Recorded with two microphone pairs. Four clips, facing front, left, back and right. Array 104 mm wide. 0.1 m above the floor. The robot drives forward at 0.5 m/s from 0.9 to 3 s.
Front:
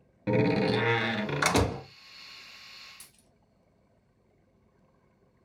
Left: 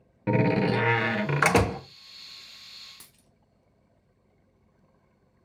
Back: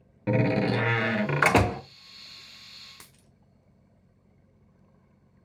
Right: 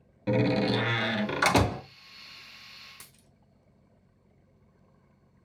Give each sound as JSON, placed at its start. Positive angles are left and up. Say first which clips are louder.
{"t": 0.3, "sound": "a door slam", "louder": "left 2 dB, back 1 dB", "azimuth_deg": 110, "distance_m": 0.8}
{"t": 3.0, "sound": "a dropped coin", "louder": "right 2 dB, back 6 dB", "azimuth_deg": 175, "distance_m": 1.2}